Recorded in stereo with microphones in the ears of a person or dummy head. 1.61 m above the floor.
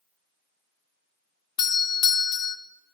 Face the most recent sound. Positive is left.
turn(degrees=25)  # may be behind; listen again after turning